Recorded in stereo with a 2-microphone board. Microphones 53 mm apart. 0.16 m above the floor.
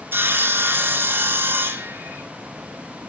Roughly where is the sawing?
Right.